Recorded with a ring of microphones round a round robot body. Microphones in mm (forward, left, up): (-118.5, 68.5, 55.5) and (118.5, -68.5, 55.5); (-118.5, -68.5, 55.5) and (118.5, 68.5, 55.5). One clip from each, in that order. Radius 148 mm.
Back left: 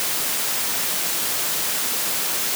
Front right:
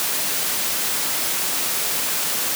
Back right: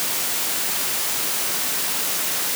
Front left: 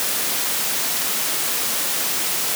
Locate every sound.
Only background noise.